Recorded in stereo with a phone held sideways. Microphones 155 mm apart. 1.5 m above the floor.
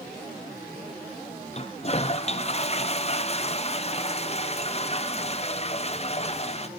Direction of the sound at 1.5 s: 40° left (ahead or behind).